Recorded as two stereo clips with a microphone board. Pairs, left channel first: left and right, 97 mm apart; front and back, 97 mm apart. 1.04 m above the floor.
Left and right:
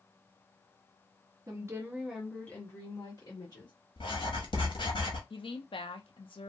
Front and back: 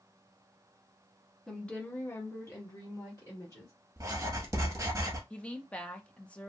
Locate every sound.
1.5 s a woman speaking: 80° right, 0.8 m; by 3.7 s 55° left, 1.4 m
4.0 s writing: 120° left, 0.8 m
5.3 s a woman speaking: 75° left, 0.6 m